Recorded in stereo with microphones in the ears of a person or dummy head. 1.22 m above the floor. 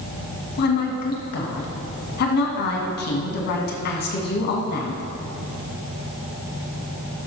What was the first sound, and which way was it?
A woman speaking, 60° left (ahead or behind).